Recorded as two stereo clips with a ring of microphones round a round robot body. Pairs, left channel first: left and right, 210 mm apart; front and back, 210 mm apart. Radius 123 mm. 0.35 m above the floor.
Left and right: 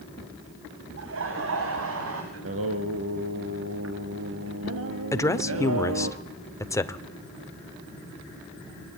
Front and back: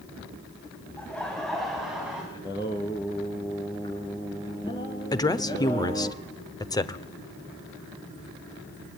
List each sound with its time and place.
1.0 s laughter: 85° right, 2.5 m; by 2.2 s 95° right, 3.5 m
2.3 s singing: 75° right, 2 m
5.1 s a woman speaking: 40° left, 1.1 m